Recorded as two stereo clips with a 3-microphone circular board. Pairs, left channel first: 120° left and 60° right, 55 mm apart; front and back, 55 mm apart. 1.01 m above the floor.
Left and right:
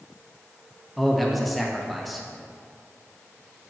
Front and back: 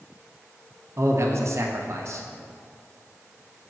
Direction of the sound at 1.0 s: 150° right.